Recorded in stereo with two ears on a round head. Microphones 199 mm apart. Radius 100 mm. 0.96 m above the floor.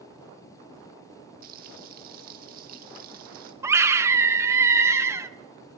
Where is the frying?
40° right (ahead or behind), 1.2 m.